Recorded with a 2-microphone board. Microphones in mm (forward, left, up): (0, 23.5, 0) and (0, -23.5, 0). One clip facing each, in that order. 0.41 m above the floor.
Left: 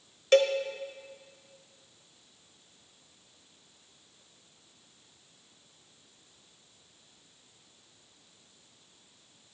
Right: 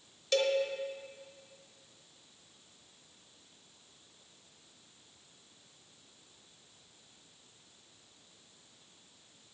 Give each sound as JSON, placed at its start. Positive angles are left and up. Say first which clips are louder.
{"t": 0.3, "sound": "a cowbell", "louder": "left 7 dB", "side_deg": 50, "distance_m": 1.1}